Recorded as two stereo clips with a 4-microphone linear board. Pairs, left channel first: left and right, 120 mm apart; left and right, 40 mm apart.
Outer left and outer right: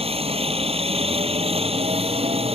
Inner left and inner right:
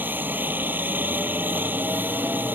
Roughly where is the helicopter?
Right.